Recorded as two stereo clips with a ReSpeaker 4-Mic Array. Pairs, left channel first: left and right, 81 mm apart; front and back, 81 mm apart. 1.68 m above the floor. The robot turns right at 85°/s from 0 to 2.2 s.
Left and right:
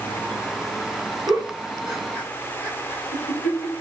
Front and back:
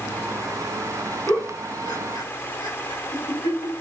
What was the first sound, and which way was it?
A giggle, 60° right.